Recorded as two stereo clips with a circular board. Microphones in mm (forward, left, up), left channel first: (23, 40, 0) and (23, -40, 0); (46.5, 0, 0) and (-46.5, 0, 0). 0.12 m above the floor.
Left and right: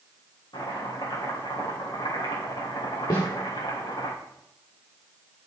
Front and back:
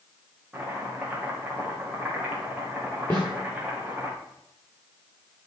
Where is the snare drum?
70° left, 4 m.